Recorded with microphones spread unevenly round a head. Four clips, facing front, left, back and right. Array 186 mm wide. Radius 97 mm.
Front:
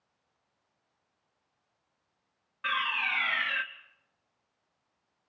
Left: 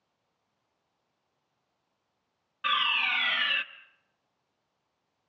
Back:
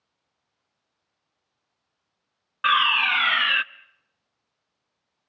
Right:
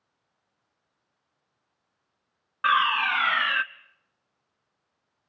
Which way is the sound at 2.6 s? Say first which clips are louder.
Right 8 dB, back 11 dB; 145° right.